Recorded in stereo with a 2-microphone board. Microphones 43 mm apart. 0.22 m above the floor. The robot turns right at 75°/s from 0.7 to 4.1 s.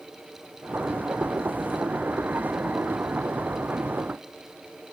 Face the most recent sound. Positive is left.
No sound to turn to.